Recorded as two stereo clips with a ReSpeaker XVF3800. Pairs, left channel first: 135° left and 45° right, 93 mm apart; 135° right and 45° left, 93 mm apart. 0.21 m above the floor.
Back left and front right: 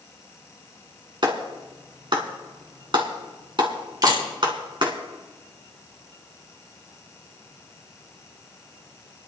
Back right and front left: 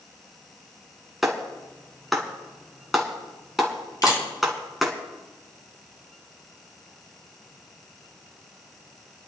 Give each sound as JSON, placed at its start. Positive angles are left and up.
{"t": 1.2, "sound": "a clap", "azimuth_deg": -45, "distance_m": 2.0}
{"t": 4.0, "sound": "a camera shutter", "azimuth_deg": -90, "distance_m": 5.5}